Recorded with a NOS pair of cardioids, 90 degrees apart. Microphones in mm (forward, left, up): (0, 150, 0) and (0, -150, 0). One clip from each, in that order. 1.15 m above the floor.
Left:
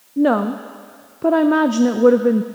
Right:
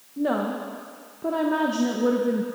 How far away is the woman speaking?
About 0.6 m.